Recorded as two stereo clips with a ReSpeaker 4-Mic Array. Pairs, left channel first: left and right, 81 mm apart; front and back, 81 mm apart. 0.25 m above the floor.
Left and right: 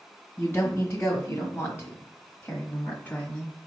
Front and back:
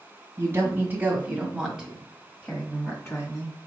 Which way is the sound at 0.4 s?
145° left.